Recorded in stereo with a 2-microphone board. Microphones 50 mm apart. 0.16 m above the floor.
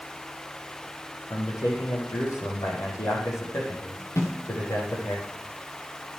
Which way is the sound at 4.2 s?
65° left (ahead or behind).